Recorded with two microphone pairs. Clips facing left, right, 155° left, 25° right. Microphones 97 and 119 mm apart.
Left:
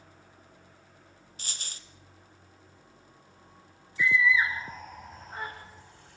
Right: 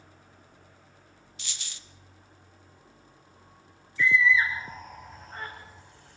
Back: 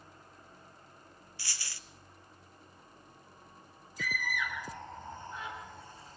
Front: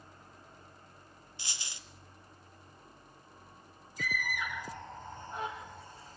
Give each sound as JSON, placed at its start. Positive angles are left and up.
{"t": 1.4, "sound": "a dropped coin", "azimuth_deg": 40, "distance_m": 1.0}
{"t": 4.0, "sound": "a scream", "azimuth_deg": 10, "distance_m": 7.0}